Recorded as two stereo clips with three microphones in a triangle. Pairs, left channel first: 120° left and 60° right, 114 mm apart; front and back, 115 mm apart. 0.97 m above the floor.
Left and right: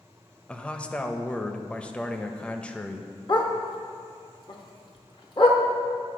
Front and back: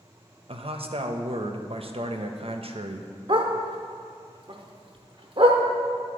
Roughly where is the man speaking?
Behind.